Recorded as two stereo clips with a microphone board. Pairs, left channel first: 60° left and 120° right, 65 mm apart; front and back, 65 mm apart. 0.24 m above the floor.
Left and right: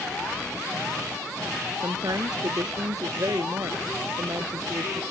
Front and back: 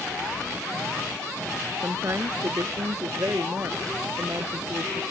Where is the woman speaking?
135° right; by 5.0 s 145° right.